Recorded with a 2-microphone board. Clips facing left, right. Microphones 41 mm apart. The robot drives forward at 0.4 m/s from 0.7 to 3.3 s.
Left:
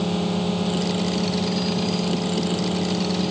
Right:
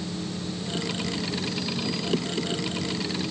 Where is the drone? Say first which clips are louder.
Left 9 dB; 75° left (ahead or behind).